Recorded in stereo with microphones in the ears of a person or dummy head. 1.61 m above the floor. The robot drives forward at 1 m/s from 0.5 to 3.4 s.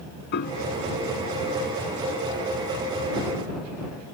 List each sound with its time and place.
0.3 s a piano: 55° left (ahead or behind)